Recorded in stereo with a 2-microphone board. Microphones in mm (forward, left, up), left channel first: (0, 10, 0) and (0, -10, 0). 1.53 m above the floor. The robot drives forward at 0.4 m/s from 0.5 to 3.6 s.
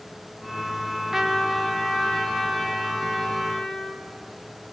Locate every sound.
1.1 s a trumpet: 15° right (ahead or behind), 1.0 m; by 4.0 s 10° right (ahead or behind), 2.0 m